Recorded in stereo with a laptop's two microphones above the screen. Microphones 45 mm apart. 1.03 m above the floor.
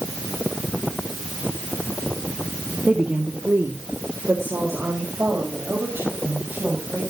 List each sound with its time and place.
2.9 s a woman speaking: 40° right (ahead or behind), 1.6 m; by 7.0 s 85° right, 6.5 m